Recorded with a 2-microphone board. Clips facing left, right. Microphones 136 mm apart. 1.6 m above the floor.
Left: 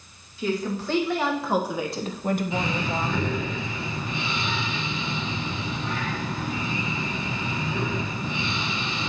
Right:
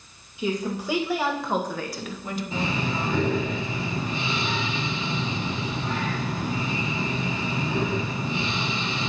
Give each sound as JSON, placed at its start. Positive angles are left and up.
{"t": 0.4, "sound": "a woman speaking", "side_deg": -15, "distance_m": 2.0}
{"t": 2.5, "sound": "breathing", "side_deg": -35, "distance_m": 2.5}